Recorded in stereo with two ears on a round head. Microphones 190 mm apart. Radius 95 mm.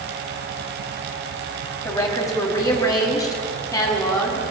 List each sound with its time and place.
1.9 s a woman speaking: 15° left (ahead or behind), 3.5 m; by 4.5 s 20° left (ahead or behind), 5 m